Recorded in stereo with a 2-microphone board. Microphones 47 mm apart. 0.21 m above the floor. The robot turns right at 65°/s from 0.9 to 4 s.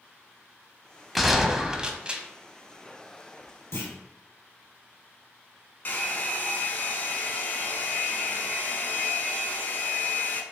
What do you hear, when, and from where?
1.1 s a gunshot: centre (ahead or behind), 0.6 m; by 2.2 s 25° right (ahead or behind), 0.6 m
3.7 s a clunk: 65° left (ahead or behind), 1.9 m; by 3.9 s 55° left (ahead or behind), 1.9 m
5.8 s a hair dryer: 45° left (ahead or behind), 0.7 m